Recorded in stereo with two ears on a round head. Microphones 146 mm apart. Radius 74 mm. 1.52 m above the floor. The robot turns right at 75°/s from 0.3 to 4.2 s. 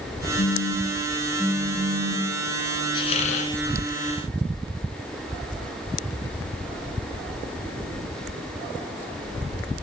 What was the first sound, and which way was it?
A phone buzzing, 105° left.